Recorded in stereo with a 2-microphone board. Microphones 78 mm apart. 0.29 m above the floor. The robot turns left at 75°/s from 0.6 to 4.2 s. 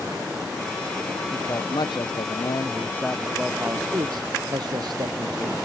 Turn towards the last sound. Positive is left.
turn(degrees=-65)